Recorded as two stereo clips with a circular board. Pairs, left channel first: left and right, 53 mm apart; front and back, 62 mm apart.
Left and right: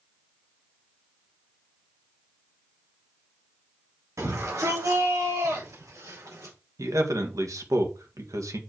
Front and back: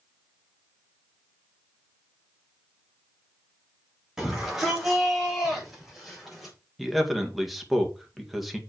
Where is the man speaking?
90° right, 1.9 m.